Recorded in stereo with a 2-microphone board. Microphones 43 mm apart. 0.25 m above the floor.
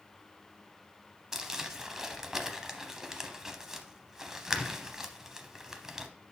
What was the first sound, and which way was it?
Crumpling, 10° right (ahead or behind).